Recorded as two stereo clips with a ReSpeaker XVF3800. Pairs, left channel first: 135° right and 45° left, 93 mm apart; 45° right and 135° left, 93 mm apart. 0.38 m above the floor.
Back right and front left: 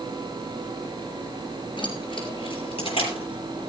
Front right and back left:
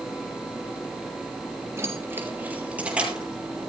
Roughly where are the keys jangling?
Behind.